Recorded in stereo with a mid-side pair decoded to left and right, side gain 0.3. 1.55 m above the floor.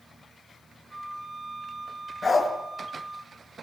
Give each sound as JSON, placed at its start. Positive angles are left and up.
{"t": 0.9, "sound": "a flute", "azimuth_deg": -40, "distance_m": 5.0}
{"t": 2.2, "sound": "a dog barking", "azimuth_deg": 50, "distance_m": 5.5}